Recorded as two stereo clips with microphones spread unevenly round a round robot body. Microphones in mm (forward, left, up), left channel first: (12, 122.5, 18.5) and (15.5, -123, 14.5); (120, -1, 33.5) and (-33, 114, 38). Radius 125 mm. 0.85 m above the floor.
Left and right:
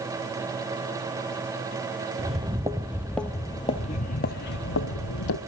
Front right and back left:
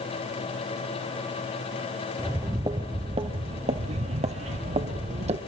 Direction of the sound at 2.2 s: 145° right.